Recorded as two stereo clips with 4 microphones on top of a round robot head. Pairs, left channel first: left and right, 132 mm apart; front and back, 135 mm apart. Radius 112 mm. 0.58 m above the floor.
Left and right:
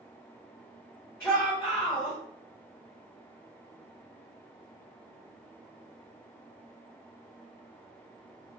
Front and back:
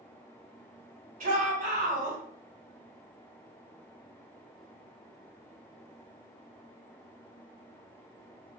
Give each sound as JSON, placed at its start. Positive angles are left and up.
{"t": 1.2, "sound": "a shout", "azimuth_deg": 165, "distance_m": 1.9}